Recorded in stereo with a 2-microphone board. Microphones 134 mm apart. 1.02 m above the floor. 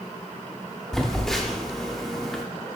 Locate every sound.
0.9 s a phone buzzing: 5° left (ahead or behind), 1.0 m